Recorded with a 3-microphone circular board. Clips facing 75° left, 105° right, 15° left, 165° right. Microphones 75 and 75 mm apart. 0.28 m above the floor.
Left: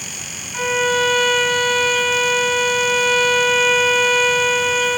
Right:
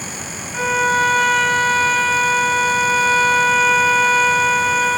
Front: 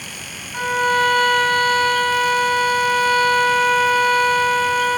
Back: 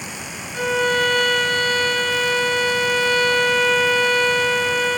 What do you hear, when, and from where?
0.5 s a violin: 25° right, 0.8 m